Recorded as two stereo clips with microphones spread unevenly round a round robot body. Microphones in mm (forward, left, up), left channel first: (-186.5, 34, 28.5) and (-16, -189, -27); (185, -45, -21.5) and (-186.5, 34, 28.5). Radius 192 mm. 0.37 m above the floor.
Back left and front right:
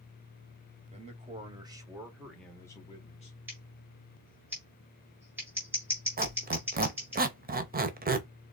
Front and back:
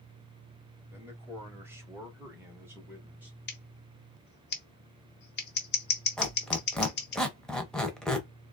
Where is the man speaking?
105° right, 1.9 m; by 3.4 s 70° left, 1.2 m.